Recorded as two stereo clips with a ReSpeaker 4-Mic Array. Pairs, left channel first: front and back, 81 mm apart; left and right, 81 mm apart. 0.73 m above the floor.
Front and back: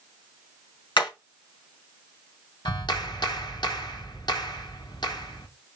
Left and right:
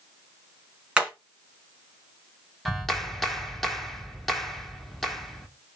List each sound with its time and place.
1.0 s hammering: 10° right, 4 m
2.6 s a clap: straight ahead, 1.8 m